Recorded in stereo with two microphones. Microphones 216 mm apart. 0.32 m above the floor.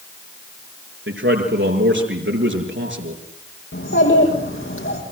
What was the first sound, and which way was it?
A man speaking, 75° right (ahead or behind).